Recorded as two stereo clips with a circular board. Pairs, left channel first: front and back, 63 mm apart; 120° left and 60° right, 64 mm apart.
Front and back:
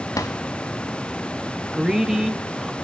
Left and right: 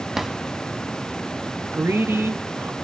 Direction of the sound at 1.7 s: 100° right.